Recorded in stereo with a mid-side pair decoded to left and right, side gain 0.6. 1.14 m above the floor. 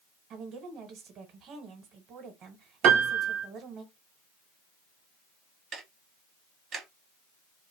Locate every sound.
0.3 s a woman speaking: 55° right, 1.3 m
2.8 s a piano: 65° right, 0.8 m
5.7 s ticking: 45° right, 1.1 m